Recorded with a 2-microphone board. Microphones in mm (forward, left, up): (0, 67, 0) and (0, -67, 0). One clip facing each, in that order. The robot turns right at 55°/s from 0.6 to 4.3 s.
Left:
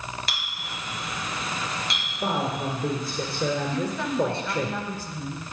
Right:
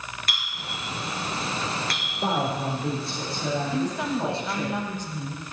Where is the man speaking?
5° left, 3.5 m; by 4.7 s 120° left, 3.5 m.